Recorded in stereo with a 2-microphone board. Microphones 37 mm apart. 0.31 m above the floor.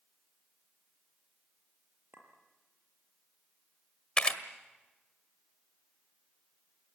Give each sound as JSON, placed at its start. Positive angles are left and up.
{"t": 2.1, "sound": "a clink", "side_deg": -65, "distance_m": 5.0}
{"t": 4.2, "sound": "a camera shutter", "side_deg": 25, "distance_m": 1.6}